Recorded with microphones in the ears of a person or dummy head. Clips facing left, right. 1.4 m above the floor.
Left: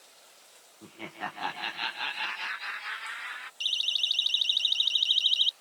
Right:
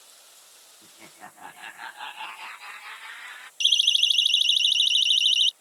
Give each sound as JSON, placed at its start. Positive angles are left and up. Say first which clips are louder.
{"t": 0.8, "sound": "laughter", "louder": "left 9 dB", "side_deg": 50}
{"t": 3.6, "sound": "a siren", "louder": "right 8 dB", "side_deg": -50}